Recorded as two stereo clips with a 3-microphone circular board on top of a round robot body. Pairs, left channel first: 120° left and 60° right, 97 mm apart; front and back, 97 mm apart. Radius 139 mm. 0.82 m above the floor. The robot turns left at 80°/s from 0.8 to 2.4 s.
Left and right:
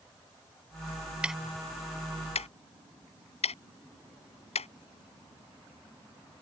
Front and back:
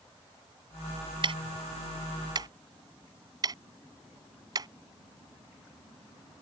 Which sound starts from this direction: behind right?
Ticking, at 1.2 s.